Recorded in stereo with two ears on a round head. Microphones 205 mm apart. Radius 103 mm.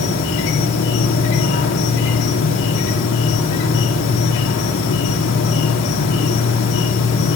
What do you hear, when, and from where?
0.0 s an insect: 55° left (ahead or behind), 3.5 m